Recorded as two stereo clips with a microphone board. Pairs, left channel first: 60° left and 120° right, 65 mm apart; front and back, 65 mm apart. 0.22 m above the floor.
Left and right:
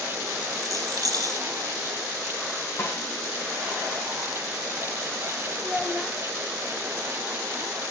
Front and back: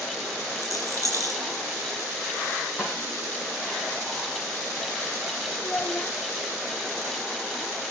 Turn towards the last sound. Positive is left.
turn(degrees=-35)